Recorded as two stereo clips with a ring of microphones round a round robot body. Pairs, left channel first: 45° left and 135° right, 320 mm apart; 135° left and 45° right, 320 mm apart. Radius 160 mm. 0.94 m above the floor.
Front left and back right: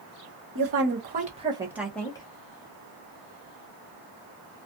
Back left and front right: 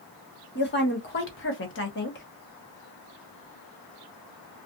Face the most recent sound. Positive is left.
turn(degrees=110)